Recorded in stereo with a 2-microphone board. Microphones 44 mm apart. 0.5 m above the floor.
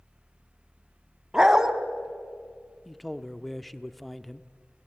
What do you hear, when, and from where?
1.3 s a dog barking: 15° right (ahead or behind), 1.2 m
2.9 s a man speaking: centre (ahead or behind), 0.7 m